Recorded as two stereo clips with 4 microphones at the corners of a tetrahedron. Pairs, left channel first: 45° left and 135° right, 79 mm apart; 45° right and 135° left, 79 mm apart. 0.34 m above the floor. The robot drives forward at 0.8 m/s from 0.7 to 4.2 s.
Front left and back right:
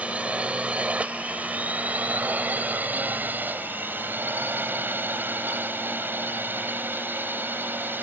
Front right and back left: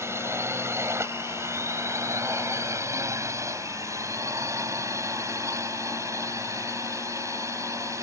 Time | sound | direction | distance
0.0 | a drone | 160° left | ?